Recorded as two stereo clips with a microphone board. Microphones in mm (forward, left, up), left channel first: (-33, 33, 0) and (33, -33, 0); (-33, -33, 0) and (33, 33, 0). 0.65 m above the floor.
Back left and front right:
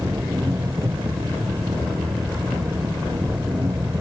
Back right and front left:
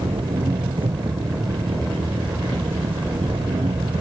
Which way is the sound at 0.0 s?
15° left.